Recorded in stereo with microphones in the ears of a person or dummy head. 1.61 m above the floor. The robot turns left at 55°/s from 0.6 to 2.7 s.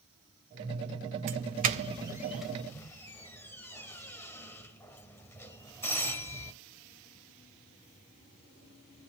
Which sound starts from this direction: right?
A doorbell, at 1.3 s.